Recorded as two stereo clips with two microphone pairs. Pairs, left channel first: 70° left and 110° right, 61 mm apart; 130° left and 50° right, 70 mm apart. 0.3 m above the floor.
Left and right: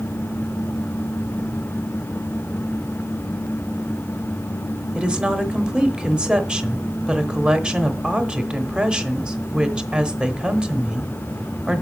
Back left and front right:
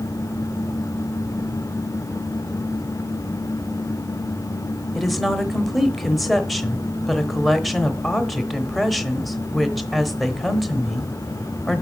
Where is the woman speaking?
145° right, 0.9 m.